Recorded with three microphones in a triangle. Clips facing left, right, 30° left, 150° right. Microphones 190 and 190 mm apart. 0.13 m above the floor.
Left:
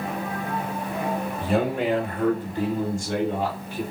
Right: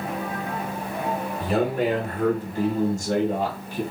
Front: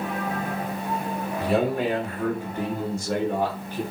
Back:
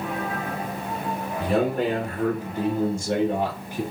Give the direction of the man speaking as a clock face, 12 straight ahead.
4 o'clock.